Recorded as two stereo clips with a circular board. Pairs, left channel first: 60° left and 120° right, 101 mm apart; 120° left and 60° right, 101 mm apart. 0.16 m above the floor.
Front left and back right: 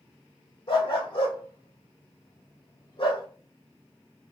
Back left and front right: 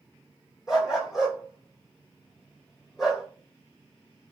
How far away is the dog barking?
About 1.8 m.